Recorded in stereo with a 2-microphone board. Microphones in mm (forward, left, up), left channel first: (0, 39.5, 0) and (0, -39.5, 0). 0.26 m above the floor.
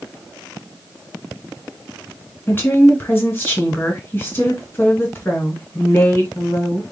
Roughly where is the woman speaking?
Left.